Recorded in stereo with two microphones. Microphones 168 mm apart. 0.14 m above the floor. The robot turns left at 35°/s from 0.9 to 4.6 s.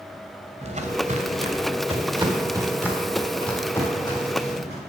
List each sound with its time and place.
0.6 s footsteps: 40° right (ahead or behind), 1.8 m; by 4.8 s 40° left (ahead or behind), 5 m